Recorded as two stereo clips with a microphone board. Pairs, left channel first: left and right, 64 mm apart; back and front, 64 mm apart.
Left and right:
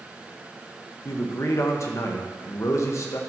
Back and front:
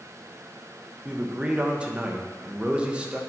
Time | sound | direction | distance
1.1 | a man speaking | 70° left | 1.2 m